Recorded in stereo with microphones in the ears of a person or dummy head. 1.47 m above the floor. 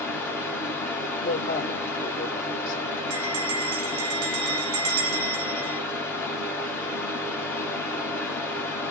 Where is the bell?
80° right, 1.0 m.